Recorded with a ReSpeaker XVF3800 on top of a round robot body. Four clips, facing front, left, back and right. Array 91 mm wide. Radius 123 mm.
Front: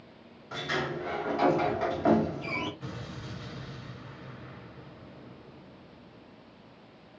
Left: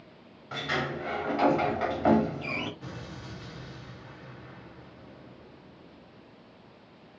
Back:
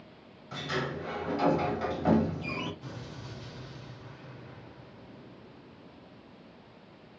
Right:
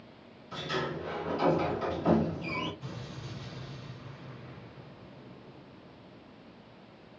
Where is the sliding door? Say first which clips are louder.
Left 3 dB, front 2 dB; 65° left, 2.5 m.